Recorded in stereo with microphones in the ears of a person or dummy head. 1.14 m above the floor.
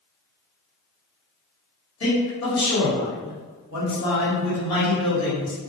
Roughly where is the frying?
I don't hear frying.